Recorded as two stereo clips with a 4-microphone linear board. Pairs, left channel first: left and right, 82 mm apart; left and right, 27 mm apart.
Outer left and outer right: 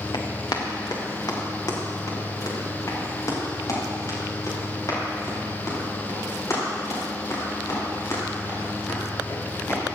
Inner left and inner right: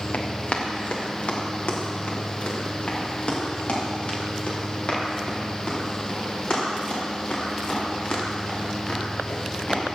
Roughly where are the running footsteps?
Left.